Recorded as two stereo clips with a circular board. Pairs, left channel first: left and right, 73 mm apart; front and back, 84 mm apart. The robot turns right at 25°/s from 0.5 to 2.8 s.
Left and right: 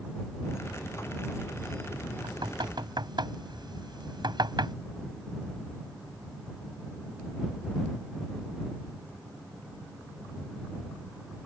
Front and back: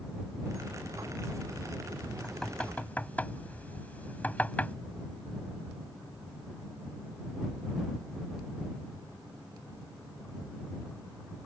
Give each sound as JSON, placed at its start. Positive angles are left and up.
{"t": 2.2, "sound": "knocking", "azimuth_deg": -85}